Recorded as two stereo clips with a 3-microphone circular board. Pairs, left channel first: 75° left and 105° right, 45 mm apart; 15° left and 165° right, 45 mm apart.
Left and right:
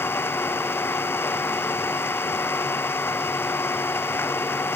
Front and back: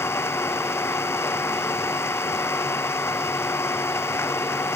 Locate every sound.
0.0 s an engine running: 40° left